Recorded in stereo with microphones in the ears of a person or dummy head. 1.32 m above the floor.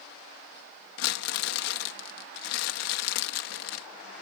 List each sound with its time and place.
1.0 s crumpling: 80° left